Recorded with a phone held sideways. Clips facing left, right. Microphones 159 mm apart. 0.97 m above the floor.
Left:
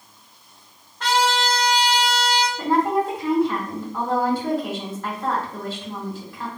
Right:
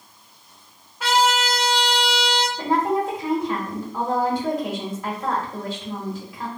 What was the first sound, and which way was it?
A trumpet, 10° right (ahead or behind).